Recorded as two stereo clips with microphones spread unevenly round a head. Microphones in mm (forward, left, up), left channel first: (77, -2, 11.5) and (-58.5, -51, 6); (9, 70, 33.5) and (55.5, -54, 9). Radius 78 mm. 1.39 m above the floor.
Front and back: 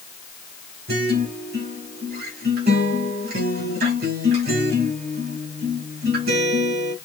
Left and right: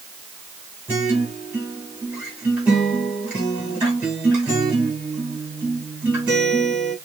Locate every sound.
0.9 s a guitar: 150° right, 1.9 m